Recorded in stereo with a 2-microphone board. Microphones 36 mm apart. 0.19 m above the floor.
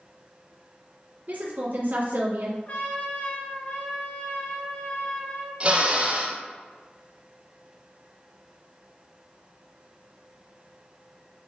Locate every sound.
1.3 s a woman speaking: 50° right (ahead or behind), 1.7 m
2.7 s a trumpet: 45° left (ahead or behind), 2.5 m
5.6 s a drill: 35° right (ahead or behind), 2.5 m